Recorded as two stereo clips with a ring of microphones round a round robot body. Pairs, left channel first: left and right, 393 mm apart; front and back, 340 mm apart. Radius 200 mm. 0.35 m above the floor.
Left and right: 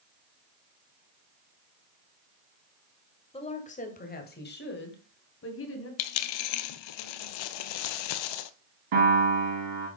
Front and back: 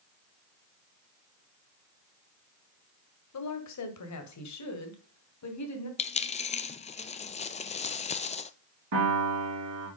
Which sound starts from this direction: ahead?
A woman speaking, at 3.3 s.